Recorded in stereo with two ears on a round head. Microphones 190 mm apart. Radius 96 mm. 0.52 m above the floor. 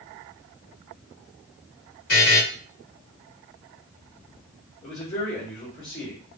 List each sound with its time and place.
2.1 s a buzzer: 45° left (ahead or behind), 1.9 m
4.8 s a man speaking: 30° left (ahead or behind), 1.5 m